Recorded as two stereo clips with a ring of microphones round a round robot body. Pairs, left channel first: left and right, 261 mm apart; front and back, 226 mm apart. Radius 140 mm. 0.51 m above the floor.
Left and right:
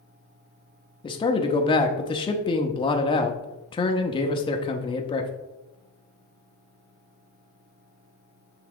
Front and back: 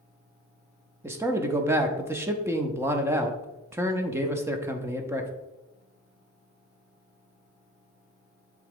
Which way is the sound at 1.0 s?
120° left.